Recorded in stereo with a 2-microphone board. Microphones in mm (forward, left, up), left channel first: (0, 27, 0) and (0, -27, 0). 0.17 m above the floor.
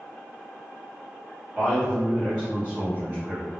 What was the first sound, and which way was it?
A man speaking, 10° right (ahead or behind).